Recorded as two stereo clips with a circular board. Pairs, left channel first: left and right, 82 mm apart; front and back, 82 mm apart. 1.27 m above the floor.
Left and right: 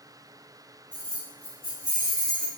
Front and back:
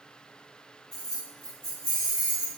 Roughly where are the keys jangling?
Right.